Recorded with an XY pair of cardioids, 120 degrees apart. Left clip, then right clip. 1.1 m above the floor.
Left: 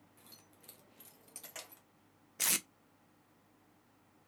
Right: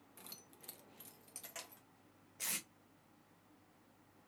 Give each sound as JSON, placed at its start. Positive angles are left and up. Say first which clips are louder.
{"t": 0.2, "sound": "keys jangling", "louder": "right 4 dB", "azimuth_deg": -50, "distance_m": 0.7}
{"t": 2.4, "sound": "tape being pulled", "louder": "left 9 dB", "azimuth_deg": 65, "distance_m": 0.5}